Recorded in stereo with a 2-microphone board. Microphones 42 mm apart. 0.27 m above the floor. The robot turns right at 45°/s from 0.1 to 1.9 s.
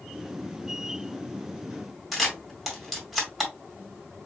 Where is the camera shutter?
5° right (ahead or behind), 1.7 m.